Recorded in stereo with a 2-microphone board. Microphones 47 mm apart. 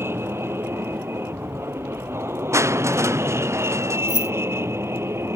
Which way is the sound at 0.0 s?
55° right (ahead or behind).